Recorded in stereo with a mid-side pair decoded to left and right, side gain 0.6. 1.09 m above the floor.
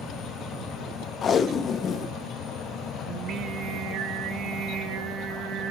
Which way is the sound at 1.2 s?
40° left.